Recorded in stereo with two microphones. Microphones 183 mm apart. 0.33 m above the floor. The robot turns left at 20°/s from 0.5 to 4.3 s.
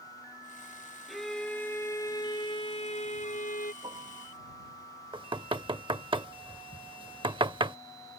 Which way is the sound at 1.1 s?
Straight behind.